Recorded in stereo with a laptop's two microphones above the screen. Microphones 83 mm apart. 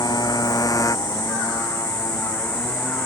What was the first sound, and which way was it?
A motorcycle, 50° left (ahead or behind).